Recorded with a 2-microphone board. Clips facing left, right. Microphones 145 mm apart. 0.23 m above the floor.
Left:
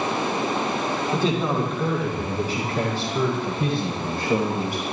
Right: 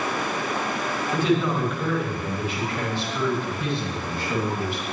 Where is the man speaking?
30° left (ahead or behind), 8.5 m; by 4.9 s 50° left (ahead or behind), 10.5 m.